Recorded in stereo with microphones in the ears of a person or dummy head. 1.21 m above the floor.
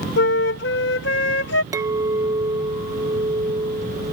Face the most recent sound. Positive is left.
turn(degrees=-20)  # may be behind; listen again after turning